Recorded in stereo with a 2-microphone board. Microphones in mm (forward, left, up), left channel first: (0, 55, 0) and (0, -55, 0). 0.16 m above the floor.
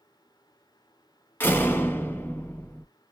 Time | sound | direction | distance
1.4 | a door slam | 20° left (ahead or behind) | 0.9 m